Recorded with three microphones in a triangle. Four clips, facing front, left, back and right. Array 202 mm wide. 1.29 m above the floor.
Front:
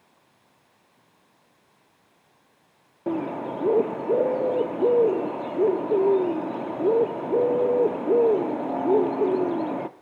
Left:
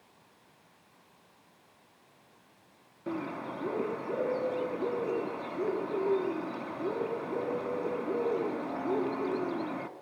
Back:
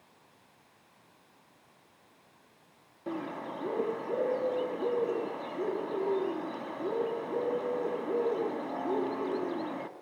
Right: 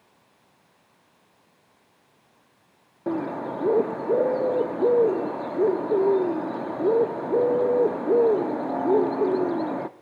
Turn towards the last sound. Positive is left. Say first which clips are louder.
# right 8 dB, front 9 dB
turn(degrees=-40)